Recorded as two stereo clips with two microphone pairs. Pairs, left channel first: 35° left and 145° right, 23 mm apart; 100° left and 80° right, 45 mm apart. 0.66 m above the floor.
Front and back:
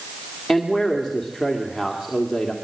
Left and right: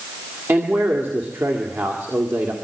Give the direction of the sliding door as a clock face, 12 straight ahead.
No sliding door in this recording.